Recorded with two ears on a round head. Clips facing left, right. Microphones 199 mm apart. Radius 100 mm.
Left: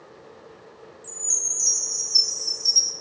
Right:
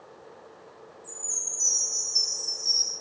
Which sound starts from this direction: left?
A chime, at 1.0 s.